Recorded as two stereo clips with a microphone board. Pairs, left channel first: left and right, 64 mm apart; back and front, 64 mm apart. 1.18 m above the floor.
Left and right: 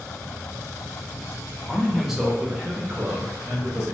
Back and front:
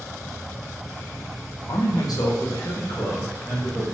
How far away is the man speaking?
About 0.6 m.